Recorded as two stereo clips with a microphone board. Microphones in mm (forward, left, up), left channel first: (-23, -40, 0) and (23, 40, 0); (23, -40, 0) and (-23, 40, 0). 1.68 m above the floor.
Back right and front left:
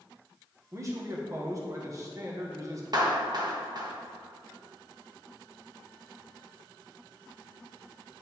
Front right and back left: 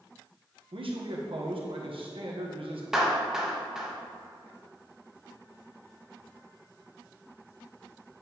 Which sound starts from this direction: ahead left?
A clap, at 2.9 s.